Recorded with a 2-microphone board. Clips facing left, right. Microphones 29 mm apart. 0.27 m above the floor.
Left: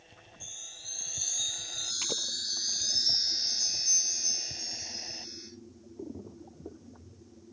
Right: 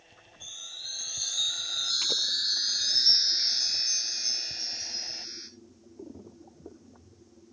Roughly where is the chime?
Right.